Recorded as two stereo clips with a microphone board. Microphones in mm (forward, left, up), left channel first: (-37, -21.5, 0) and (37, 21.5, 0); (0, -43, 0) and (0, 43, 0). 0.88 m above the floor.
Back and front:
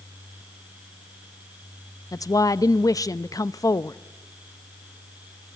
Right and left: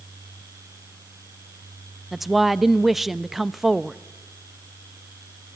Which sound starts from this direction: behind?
A woman speaking, at 2.1 s.